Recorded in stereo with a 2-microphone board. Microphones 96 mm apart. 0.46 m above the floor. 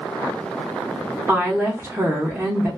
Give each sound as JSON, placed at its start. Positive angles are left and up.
{"t": 1.3, "sound": "a woman speaking", "side_deg": -20, "distance_m": 0.8}